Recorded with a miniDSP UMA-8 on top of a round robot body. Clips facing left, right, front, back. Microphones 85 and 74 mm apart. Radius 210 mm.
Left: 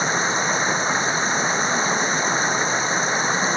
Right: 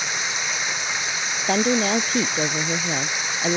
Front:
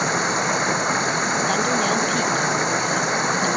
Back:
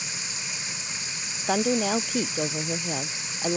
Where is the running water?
35° left.